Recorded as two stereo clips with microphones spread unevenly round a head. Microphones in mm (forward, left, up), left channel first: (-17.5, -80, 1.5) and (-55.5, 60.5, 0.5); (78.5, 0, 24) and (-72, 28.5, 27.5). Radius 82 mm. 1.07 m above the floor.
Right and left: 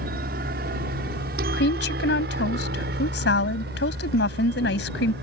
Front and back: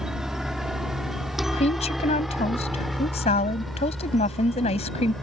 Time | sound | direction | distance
0.0 | a helicopter | 85° left | ?
1.5 | a woman speaking | 65° right | ?